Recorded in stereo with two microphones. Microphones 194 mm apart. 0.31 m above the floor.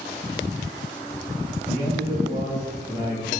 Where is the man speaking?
20° right (ahead or behind), 2 m.